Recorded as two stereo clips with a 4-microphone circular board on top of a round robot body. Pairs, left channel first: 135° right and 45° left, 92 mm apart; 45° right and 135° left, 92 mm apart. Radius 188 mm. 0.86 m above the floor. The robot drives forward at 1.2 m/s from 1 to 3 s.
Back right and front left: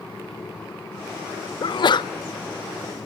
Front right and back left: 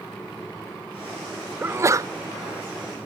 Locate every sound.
1.6 s a sneeze: 160° right, 0.5 m; by 2.1 s 170° right, 1.0 m